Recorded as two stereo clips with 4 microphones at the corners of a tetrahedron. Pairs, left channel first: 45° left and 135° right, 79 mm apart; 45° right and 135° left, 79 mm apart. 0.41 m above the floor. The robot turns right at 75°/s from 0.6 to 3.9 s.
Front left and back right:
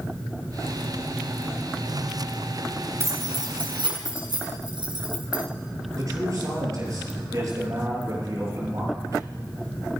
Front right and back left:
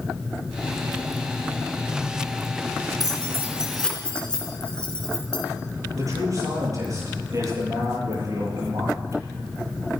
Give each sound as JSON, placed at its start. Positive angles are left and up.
{"t": 3.0, "sound": "keys jangling", "azimuth_deg": 170, "distance_m": 4.0}
{"t": 5.9, "sound": "a man speaking", "azimuth_deg": 180, "distance_m": 8.0}